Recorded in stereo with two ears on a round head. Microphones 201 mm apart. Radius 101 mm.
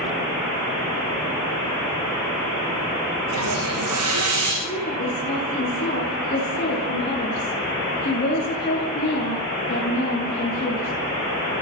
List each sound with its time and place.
3.3 s a hiss: 90° right, 9.5 m
4.6 s a woman speaking: 35° left (ahead or behind), 8 m